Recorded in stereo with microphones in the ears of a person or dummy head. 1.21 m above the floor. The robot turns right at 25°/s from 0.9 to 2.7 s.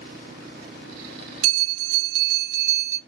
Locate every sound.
1.4 s a bell: 50° right, 0.6 m; by 3.0 s 15° right, 0.6 m